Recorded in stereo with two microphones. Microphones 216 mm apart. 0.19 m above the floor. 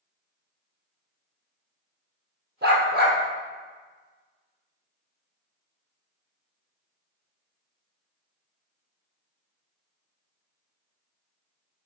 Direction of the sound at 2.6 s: 55° right (ahead or behind).